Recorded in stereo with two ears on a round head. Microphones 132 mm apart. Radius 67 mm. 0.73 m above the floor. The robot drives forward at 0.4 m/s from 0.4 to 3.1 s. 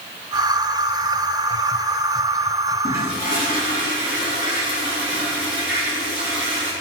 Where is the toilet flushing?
80° right, 4.5 m; by 6.7 s 85° right, 4.5 m.